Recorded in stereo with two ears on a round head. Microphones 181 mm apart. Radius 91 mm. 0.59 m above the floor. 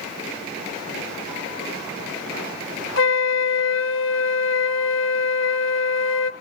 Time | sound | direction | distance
3.0 | a flute | 65° left (ahead or behind) | 1.0 m